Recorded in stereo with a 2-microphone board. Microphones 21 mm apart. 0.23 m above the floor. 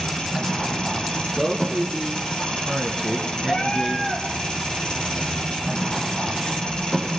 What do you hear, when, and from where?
0.0 s an engine running: 50° left (ahead or behind), 7.5 m
1.4 s a man speaking: 5° right (ahead or behind), 3 m
3.5 s a cat meowing: 70° left (ahead or behind), 5 m